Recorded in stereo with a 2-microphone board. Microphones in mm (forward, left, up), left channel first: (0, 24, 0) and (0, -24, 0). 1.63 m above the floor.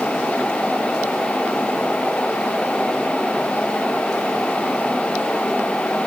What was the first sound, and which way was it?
Only background noise.